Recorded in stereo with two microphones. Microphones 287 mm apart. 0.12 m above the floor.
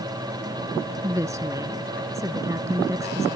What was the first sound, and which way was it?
A woman speaking, 10° right (ahead or behind).